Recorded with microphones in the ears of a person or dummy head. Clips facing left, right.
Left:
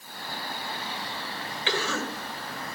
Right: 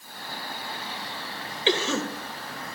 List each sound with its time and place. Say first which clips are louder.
1.7 s a cough: right 5 dB; 25° right (ahead or behind), 1.8 m